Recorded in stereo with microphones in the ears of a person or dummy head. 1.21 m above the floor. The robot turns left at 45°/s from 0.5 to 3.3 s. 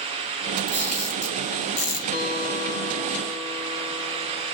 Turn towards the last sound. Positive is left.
turn(degrees=-10)